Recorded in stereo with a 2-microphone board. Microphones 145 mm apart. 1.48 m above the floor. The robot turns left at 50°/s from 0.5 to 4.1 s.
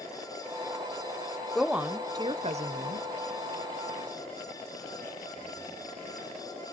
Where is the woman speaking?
5° left, 0.6 m; by 3.1 s 75° right, 0.6 m.